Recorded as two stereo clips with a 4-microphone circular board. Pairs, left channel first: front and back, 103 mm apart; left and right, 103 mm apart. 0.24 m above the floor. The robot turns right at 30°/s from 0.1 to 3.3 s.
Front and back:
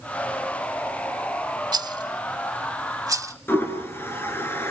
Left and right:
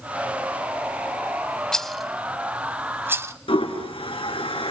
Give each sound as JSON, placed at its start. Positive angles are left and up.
{"t": 1.7, "sound": "a rattle", "azimuth_deg": 170, "distance_m": 0.8}
{"t": 3.5, "sound": "a toilet flushing", "azimuth_deg": 65, "distance_m": 3.5}